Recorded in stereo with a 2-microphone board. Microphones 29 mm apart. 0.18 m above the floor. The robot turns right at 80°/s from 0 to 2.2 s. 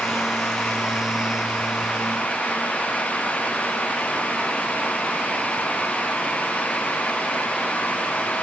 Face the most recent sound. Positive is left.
No sound to turn to.